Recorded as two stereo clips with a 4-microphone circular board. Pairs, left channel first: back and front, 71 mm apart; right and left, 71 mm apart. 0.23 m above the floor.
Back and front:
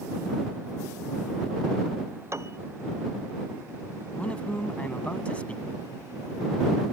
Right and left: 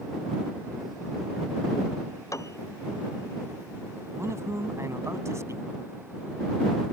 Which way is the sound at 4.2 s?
115° left.